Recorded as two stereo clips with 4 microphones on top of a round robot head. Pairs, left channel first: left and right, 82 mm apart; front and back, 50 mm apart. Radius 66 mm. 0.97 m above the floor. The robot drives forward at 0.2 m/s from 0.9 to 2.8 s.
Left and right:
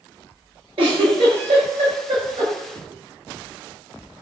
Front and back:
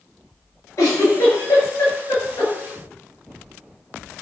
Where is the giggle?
55° right, 7 m.